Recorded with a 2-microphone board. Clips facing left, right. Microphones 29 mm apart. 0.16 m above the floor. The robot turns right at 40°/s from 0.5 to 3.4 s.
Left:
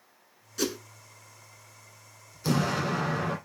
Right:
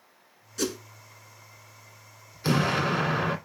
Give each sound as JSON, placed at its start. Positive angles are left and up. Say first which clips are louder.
{"t": 0.6, "sound": "a whoosh", "louder": "even", "side_deg": 5, "distance_m": 0.9}
{"t": 2.4, "sound": "an explosion", "louder": "right 3 dB", "azimuth_deg": -130, "distance_m": 1.4}